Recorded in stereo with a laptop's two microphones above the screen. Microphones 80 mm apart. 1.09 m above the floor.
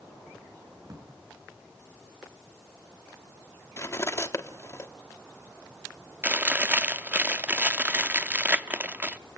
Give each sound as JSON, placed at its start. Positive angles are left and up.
{"t": 0.8, "sound": "a drawer", "side_deg": -55, "distance_m": 8.5}
{"t": 3.8, "sound": "cutlery clinking", "side_deg": 35, "distance_m": 1.1}
{"t": 6.2, "sound": "chewing", "side_deg": -20, "distance_m": 0.7}